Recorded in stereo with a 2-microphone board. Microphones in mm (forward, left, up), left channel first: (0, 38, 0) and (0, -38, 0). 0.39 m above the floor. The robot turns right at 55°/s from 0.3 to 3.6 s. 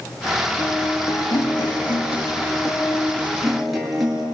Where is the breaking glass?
I don't hear breaking glass.